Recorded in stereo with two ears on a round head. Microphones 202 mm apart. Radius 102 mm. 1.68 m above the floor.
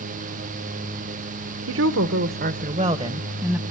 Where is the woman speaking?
70° right (ahead or behind), 1.2 m; by 3.6 s centre (ahead or behind), 1.7 m.